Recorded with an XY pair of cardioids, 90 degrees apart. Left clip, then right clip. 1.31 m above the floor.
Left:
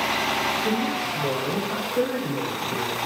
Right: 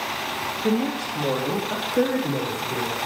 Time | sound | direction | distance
0.6 | a woman speaking | 55° right | 1.7 m